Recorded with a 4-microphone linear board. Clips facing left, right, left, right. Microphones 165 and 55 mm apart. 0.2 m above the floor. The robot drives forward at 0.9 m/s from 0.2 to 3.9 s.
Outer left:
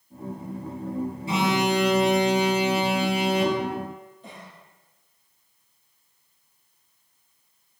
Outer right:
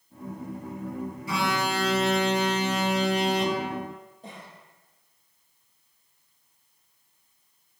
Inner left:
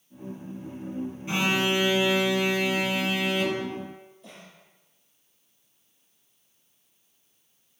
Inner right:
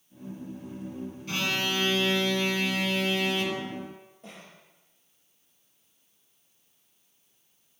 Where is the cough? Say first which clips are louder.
Even, inner right 1 dB; 45° right (ahead or behind), 7 m.